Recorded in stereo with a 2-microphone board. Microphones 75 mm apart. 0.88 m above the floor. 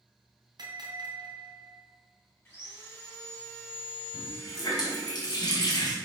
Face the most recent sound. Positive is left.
turn(degrees=60)  # may be behind; listen again after turning